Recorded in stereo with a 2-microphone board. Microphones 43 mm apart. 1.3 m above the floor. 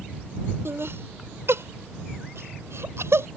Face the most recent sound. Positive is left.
turn(degrees=-85)